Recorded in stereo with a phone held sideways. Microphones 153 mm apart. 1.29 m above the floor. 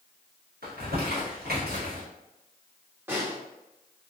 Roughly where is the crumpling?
Right.